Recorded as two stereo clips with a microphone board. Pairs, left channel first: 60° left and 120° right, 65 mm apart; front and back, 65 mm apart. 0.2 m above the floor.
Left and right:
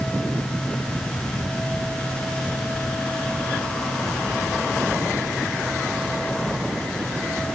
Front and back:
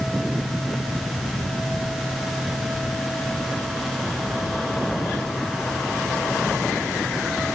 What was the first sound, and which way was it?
Only background noise.